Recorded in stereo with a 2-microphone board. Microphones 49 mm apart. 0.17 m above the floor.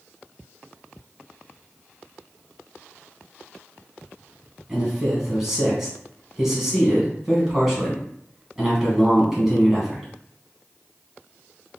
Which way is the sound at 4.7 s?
10° right (ahead or behind).